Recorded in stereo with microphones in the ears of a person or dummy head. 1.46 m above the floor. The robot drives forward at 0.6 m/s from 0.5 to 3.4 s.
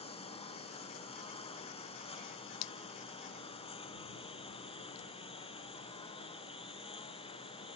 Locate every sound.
0.0 s a lawn mower: 25° left (ahead or behind); by 7.8 s 20° left (ahead or behind)